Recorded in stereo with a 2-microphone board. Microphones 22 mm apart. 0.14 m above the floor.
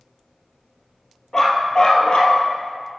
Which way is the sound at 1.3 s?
25° left (ahead or behind).